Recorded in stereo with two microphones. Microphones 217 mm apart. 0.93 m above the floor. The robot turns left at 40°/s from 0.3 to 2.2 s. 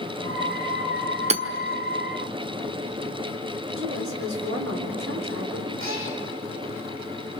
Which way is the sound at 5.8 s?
70° right (ahead or behind).